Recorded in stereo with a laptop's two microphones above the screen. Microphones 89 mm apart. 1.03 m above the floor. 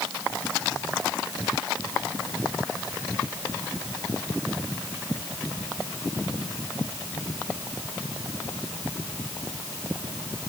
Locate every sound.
Only background noise.